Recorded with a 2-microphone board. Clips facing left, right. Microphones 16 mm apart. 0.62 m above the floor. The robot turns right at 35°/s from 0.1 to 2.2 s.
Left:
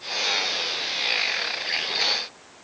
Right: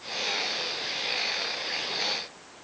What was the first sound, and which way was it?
Only background noise.